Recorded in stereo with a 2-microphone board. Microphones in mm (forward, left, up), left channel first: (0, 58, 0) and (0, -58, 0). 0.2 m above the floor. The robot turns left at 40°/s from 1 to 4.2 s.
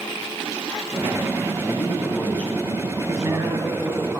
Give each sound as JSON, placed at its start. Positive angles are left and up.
{"t": 1.6, "sound": "a man speaking", "azimuth_deg": 55, "distance_m": 1.5}
{"t": 3.1, "sound": "a man speaking", "side_deg": -25, "distance_m": 1.6}